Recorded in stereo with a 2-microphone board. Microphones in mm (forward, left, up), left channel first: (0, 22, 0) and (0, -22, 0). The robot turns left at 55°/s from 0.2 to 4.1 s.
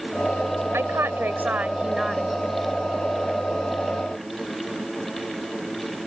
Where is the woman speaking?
95° right; by 2.4 s 175° left.